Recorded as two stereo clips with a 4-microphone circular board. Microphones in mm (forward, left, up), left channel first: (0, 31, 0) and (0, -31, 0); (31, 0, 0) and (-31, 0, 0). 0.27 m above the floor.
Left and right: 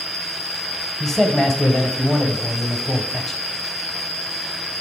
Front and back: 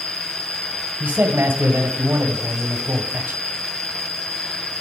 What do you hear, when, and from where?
0.0 s an insect: 55° left, 2.0 m
1.0 s a man speaking: 170° left, 1.2 m